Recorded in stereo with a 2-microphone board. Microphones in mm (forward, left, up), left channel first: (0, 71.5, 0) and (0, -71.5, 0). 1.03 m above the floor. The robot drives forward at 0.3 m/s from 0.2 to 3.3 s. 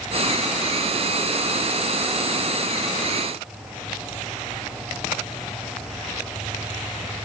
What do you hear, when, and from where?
Only background noise.